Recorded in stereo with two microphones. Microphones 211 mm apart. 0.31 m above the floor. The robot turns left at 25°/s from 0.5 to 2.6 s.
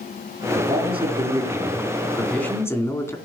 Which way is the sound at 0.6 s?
140° right.